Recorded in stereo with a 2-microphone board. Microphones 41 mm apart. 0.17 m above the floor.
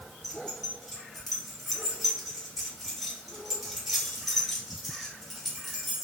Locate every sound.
0.2 s keys jangling: 5° right (ahead or behind), 1.7 m